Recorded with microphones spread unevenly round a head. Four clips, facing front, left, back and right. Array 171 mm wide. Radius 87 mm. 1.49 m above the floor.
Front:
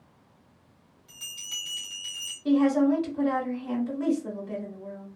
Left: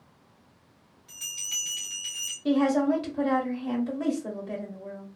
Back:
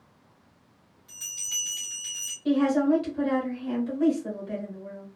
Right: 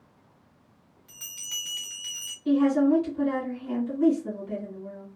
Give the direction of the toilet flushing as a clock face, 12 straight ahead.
I don't hear a toilet flushing.